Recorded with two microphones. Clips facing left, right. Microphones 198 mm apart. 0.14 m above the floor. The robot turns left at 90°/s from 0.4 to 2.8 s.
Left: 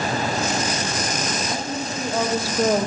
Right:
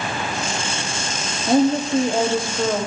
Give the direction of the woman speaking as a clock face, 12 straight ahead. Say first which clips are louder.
Right 11 dB; 3 o'clock.